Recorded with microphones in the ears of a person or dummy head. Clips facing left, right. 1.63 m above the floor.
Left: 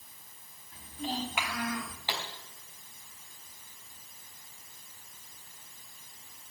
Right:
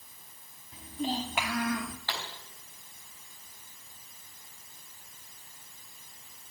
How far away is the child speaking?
About 2 m.